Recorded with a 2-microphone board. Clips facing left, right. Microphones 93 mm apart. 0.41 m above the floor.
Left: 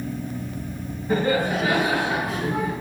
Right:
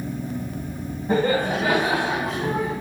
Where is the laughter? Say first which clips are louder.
Right 1 dB; 35° right (ahead or behind), 3.5 m; by 2.7 s 40° right (ahead or behind), 4.5 m.